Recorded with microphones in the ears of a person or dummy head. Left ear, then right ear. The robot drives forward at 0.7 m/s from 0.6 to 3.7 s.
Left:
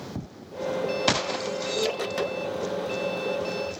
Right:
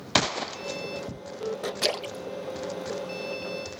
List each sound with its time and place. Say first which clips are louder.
1.8 s a splash: left 2 dB; 40° right (ahead or behind); by 3.6 s 75° right (ahead or behind)